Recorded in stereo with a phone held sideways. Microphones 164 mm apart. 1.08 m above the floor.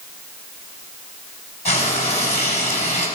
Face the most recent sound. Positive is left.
turn(degrees=45)  # may be behind; listen again after turning